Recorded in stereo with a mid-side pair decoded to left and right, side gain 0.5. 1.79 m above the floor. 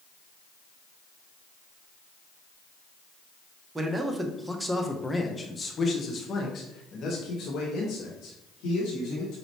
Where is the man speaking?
20° right, 1.2 m; by 9.3 s 80° left, 2.5 m.